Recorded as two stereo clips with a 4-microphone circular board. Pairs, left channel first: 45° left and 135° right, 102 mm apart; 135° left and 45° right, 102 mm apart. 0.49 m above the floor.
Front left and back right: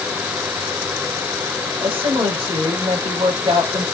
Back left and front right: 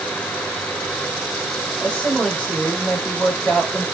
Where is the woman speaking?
145° right, 2.5 m.